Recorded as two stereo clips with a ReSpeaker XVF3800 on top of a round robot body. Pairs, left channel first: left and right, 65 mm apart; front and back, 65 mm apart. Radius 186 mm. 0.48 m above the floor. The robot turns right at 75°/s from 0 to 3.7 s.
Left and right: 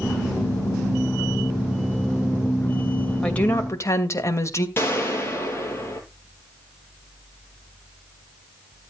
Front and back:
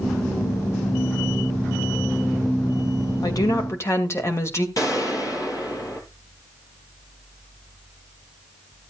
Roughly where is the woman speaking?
Ahead.